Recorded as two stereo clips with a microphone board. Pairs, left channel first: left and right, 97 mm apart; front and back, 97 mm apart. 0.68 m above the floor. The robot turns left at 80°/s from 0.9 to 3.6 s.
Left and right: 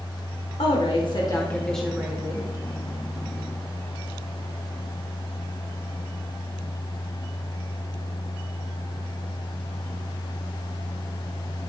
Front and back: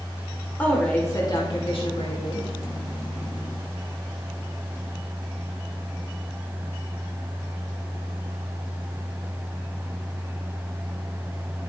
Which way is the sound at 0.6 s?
75° left.